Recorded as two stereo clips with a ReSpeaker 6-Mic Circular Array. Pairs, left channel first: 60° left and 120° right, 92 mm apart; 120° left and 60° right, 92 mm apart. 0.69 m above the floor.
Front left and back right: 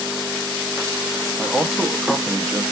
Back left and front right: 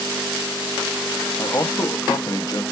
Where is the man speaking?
150° left, 0.7 m.